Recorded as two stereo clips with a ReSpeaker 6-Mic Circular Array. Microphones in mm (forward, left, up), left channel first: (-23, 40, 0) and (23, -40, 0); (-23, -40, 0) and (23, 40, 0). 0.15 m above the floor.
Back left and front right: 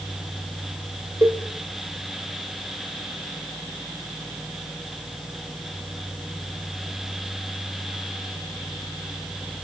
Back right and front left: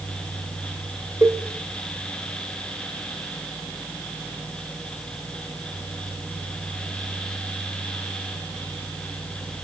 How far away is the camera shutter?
No camera shutter in this recording.